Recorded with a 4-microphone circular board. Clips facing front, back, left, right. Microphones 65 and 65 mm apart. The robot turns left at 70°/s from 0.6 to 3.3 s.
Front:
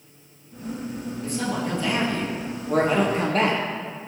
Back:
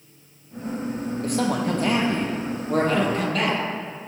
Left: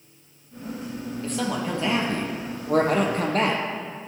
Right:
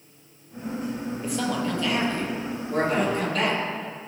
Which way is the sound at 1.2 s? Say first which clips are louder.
Back 4 dB, even; 165° right.